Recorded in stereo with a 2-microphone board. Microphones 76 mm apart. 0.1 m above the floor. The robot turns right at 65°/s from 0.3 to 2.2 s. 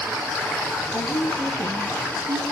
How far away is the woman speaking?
About 2.5 m.